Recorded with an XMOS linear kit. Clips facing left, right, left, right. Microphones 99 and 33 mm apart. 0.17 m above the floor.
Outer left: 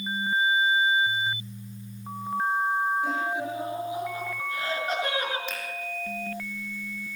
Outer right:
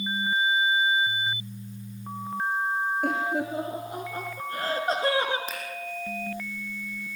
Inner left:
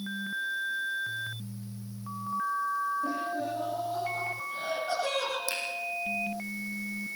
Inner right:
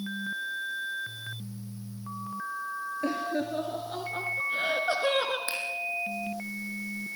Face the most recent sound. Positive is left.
turn(degrees=-45)  # may be behind; listen again after turning